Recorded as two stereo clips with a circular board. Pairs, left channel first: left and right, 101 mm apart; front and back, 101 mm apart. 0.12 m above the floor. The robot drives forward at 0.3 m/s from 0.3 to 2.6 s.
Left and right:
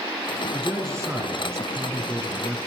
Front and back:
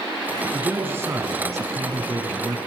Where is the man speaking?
125° right, 1.6 m; by 2.6 s 145° right, 1.9 m.